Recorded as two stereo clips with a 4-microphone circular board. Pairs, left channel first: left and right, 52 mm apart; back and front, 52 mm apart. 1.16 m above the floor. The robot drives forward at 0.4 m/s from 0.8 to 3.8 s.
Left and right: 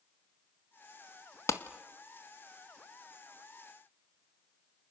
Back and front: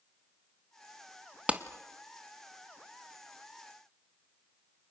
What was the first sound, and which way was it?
A clap, 65° left.